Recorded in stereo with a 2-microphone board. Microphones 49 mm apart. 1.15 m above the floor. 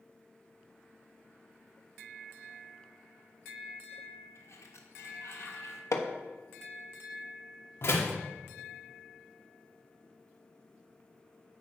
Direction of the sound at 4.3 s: 75° left (ahead or behind).